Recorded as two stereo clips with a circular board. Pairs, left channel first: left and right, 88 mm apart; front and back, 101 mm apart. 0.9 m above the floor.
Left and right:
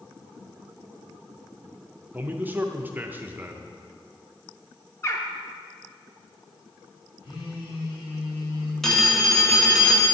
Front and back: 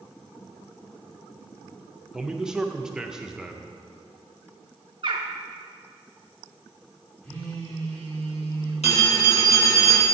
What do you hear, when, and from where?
2.1 s a man speaking: 110° right, 0.5 m
5.0 s a bird: 145° left, 0.7 m
7.2 s a phone buzzing: 80° left, 2.5 m
8.8 s a phone ringing: 5° left, 1.2 m